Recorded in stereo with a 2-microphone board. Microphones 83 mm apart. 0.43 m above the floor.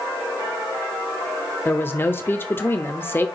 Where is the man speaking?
25° left (ahead or behind), 1.0 m.